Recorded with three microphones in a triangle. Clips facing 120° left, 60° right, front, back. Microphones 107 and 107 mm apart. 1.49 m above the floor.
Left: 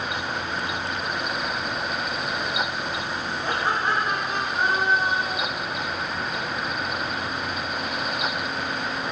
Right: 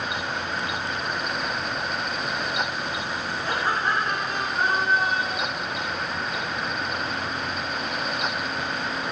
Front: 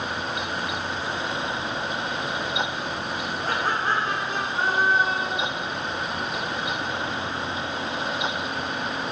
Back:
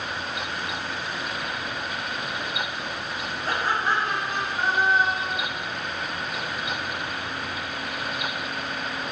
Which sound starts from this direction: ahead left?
Laughter, at 3.4 s.